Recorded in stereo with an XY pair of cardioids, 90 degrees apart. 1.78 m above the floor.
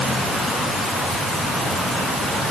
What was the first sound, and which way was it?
Only background noise.